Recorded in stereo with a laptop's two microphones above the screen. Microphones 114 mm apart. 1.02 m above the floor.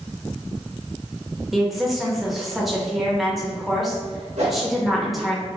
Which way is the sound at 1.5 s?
Centre (ahead or behind).